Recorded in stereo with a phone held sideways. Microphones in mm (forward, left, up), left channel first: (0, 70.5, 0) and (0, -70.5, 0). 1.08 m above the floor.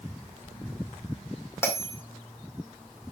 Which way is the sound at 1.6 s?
20° left (ahead or behind).